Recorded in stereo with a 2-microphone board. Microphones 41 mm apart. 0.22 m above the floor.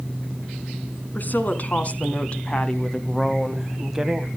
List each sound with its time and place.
1.1 s a woman speaking: 45° left (ahead or behind), 2.5 m; by 4.3 s 15° right (ahead or behind), 1.5 m